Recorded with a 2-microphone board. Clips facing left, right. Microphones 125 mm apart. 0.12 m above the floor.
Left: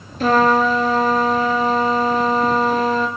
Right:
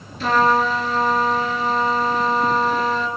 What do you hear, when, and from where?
0.2 s a trumpet: 50° left (ahead or behind), 1.3 m